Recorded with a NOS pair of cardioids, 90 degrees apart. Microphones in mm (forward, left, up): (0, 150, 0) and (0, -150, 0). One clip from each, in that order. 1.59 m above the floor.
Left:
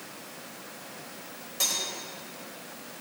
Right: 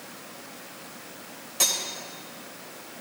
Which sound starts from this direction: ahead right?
Cutlery clinking, at 1.6 s.